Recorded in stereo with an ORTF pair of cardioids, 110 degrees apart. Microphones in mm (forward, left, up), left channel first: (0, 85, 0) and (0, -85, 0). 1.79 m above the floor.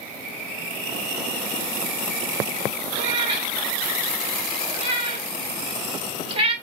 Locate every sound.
3.0 s a cat meowing: 35° right, 4 m